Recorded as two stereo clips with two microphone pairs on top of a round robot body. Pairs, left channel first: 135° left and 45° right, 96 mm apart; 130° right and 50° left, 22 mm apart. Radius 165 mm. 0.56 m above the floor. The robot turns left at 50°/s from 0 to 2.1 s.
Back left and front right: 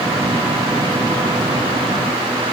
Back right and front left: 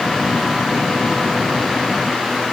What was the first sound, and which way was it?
Only background noise.